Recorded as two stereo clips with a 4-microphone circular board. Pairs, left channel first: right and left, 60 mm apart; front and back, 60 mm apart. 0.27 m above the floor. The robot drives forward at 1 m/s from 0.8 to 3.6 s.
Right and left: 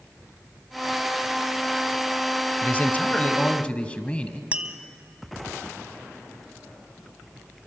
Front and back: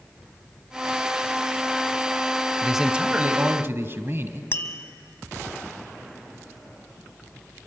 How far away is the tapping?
About 1.1 m.